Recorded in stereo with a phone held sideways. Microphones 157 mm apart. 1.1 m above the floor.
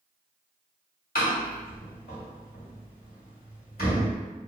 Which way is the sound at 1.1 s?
80° left.